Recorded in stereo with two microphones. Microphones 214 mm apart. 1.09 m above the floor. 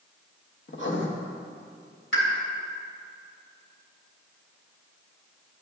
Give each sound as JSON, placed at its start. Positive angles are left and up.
{"t": 0.7, "sound": "writing", "side_deg": 60, "distance_m": 1.0}
{"t": 2.1, "sound": "a pop", "side_deg": 75, "distance_m": 3.0}